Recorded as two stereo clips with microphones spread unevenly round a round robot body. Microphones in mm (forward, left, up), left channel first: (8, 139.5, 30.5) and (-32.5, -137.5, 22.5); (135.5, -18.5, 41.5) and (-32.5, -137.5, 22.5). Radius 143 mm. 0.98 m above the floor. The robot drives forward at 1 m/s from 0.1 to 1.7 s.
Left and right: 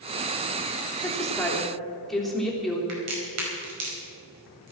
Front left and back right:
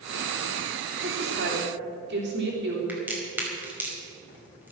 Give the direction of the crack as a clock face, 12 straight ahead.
2 o'clock.